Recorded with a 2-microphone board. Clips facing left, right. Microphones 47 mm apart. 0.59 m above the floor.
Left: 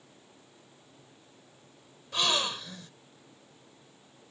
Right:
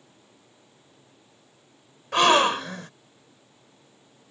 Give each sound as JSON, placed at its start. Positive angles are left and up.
{"t": 2.1, "sound": "a gasp", "side_deg": -60}